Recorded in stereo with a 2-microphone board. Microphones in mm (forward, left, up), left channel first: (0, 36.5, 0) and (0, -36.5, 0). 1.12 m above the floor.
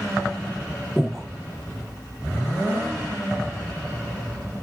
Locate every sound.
1.0 s breathing: 5° left (ahead or behind), 0.8 m